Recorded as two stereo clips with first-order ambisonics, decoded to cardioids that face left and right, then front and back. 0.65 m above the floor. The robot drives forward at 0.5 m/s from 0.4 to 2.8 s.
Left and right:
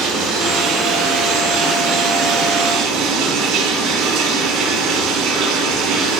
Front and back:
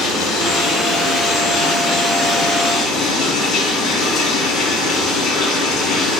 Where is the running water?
50° right, 4.5 m; by 6.2 s 65° right, 3.5 m.